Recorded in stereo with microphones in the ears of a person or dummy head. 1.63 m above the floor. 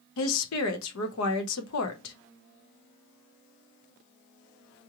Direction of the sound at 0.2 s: 75° left (ahead or behind).